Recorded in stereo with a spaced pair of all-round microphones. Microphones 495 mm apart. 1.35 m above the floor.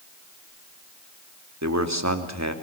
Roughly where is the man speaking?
Right.